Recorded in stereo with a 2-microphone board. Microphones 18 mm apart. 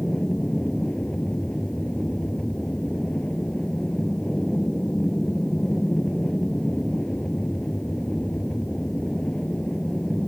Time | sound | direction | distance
0.0 | an aircraft | 50° left (ahead or behind) | ?